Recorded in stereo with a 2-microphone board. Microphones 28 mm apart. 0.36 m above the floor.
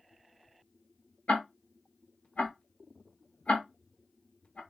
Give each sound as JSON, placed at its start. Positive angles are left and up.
{"t": 1.3, "sound": "ticking", "side_deg": 55, "distance_m": 0.8}